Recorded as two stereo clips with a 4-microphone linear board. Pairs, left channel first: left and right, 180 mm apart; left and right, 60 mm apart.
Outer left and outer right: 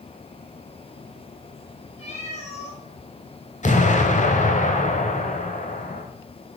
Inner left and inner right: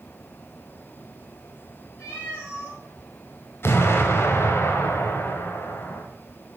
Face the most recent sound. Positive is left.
turn(degrees=45)  # may be behind; listen again after turning